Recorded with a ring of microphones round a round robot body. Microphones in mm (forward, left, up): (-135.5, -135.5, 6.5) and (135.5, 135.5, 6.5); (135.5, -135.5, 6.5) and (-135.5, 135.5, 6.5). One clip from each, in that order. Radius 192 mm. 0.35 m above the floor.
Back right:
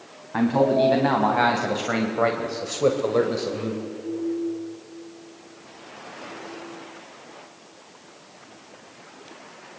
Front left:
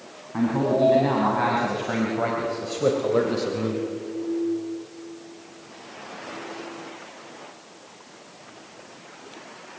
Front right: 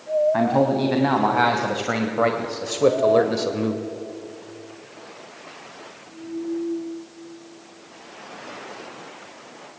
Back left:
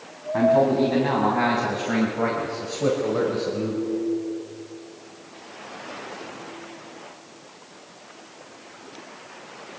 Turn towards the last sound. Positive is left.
turn(degrees=-40)